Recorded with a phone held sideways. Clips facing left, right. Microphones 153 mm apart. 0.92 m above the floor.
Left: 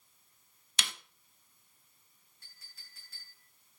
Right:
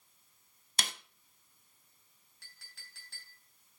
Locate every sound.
0.8 s a snare drum: 45° right (ahead or behind), 0.7 m
2.4 s a clink: 90° right, 3.5 m